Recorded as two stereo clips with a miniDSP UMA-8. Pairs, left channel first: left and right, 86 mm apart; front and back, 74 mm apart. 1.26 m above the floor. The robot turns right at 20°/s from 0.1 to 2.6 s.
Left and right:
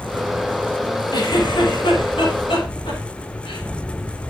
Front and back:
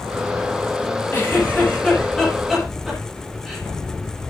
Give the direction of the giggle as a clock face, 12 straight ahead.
10 o'clock.